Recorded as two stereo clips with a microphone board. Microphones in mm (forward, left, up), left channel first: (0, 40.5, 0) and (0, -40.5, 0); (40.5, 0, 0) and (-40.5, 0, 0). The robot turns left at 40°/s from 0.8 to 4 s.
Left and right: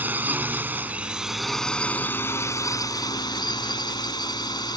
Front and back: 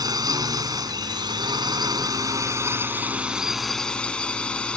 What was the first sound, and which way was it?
A drone, 155° right.